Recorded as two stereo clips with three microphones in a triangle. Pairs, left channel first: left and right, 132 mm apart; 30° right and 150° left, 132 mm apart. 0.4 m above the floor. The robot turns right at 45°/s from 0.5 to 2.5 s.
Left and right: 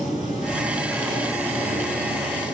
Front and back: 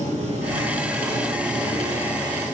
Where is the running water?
Straight behind, 2 m; by 2.5 s 90° right, 2 m.